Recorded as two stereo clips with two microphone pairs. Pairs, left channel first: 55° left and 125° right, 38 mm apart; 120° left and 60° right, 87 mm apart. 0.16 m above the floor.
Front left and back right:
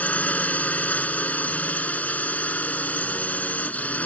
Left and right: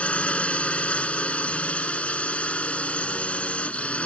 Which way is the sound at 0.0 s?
50° left.